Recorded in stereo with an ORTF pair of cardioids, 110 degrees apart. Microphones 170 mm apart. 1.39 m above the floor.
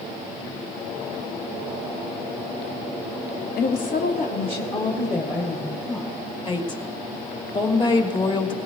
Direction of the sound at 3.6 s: 70° left.